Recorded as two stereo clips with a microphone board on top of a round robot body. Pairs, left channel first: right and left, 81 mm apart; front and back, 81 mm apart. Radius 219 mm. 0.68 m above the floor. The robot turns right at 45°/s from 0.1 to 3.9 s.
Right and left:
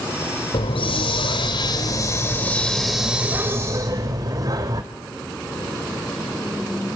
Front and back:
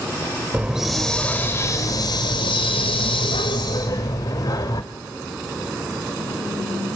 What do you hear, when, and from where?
0.5 s a hiss: 105° right, 0.5 m; by 4.8 s 45° left, 0.5 m